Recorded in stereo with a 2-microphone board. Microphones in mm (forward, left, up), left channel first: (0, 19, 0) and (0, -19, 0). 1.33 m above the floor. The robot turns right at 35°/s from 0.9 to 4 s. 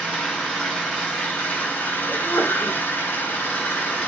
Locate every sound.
0.0 s an engine running: 20° left, 5.5 m; by 4.1 s 125° left, 5.5 m
2.1 s a sneeze: 80° left, 4 m; by 2.8 s 75° left (ahead or behind), 4 m